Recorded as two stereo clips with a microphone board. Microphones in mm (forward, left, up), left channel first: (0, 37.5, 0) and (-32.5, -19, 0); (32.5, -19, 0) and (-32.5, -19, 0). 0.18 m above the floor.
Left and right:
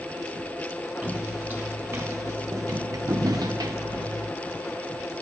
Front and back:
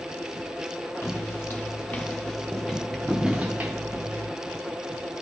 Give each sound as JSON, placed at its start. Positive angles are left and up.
{"t": 1.0, "sound": "footsteps", "azimuth_deg": -55, "distance_m": 1.6}